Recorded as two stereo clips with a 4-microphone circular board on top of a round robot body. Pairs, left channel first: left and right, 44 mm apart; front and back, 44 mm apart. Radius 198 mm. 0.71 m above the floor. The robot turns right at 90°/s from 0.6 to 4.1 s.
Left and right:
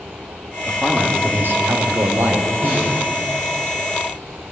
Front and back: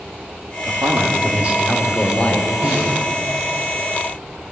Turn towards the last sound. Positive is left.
turn(degrees=0)